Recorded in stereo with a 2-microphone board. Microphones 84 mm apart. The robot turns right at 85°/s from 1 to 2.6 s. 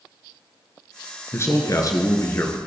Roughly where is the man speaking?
Ahead left.